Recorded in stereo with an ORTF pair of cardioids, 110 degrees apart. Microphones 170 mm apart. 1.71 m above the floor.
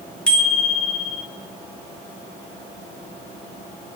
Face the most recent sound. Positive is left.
turn(degrees=5)